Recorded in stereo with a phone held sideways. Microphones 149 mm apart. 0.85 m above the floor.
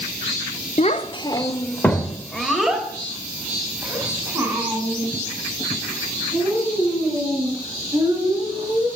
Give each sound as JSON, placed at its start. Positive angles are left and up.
{"t": 0.8, "sound": "a child speaking", "side_deg": 50, "distance_m": 1.1}